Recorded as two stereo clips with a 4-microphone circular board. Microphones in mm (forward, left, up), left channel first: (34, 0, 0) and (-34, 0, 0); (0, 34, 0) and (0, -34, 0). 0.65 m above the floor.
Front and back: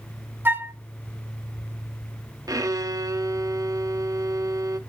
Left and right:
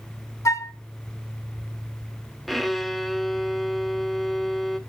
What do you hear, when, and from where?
0.5 s a flute: 125° left, 0.6 m
2.5 s a violin: straight behind, 0.7 m